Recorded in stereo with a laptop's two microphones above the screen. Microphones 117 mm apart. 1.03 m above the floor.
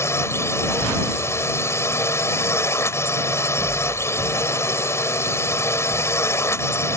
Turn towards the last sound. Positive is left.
turn(degrees=20)  # may be behind; listen again after turning